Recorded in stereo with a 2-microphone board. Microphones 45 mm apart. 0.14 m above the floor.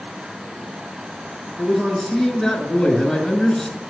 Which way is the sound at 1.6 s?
Centre (ahead or behind).